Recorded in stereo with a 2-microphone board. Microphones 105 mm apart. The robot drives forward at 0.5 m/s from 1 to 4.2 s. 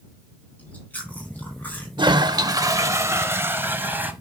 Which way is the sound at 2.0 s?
50° right (ahead or behind).